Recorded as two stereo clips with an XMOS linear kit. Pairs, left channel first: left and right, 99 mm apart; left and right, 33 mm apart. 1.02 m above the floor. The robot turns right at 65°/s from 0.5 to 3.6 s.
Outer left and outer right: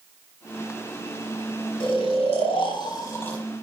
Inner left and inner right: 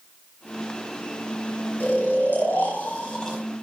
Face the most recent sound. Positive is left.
turn(degrees=180)